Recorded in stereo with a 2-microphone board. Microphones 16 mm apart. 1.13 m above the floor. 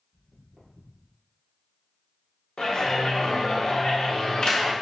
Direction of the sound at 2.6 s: 65° left (ahead or behind).